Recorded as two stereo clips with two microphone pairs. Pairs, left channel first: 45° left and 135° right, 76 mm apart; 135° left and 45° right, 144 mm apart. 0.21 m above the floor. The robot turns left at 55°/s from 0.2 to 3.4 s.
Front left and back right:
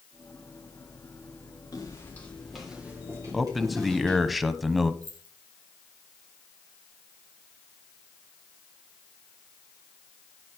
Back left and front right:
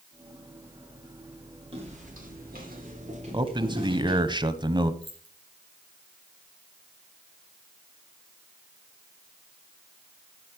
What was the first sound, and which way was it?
Footsteps, straight ahead.